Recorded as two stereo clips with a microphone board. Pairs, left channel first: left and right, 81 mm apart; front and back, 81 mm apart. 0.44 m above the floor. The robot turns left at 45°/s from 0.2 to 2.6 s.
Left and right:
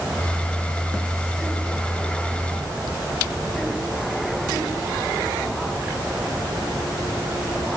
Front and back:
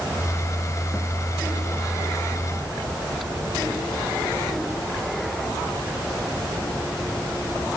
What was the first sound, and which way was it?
Only background noise.